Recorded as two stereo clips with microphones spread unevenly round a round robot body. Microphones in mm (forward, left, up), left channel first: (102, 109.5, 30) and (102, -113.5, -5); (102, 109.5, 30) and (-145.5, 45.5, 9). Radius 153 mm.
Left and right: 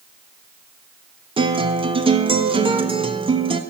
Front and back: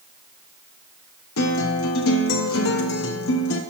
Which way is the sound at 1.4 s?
30° right.